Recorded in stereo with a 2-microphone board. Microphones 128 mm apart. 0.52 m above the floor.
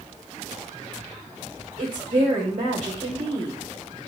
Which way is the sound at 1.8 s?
65° right (ahead or behind).